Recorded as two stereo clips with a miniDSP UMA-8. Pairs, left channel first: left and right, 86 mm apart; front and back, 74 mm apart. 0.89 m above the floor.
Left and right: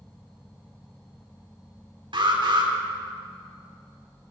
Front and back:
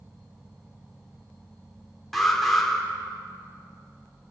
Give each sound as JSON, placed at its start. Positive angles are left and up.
{"t": 2.1, "sound": "an alarm", "azimuth_deg": -85, "distance_m": 4.5}